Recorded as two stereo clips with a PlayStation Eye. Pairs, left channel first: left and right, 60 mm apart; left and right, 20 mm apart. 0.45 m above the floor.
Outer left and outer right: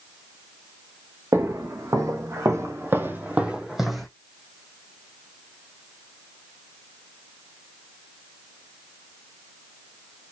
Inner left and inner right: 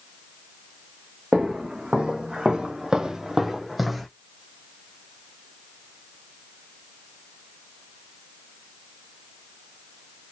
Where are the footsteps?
65° right (ahead or behind), 1.3 m; by 4.1 s centre (ahead or behind), 0.9 m.